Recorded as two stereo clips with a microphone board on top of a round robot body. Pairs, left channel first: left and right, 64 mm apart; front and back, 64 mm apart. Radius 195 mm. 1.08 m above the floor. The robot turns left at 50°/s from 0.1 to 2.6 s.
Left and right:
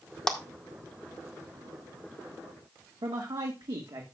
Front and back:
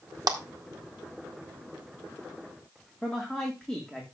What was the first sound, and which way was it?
A clap, 170° left.